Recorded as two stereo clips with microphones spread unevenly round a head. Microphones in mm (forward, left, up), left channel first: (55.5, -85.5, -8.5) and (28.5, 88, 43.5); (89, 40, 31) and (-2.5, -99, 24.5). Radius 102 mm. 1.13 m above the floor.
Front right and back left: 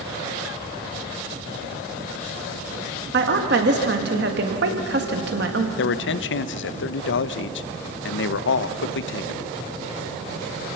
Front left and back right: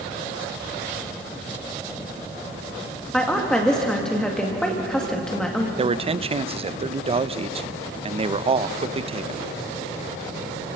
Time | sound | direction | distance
3.1 | a woman speaking | 145° left | 1.9 m
5.8 | a man speaking | 65° right | 0.7 m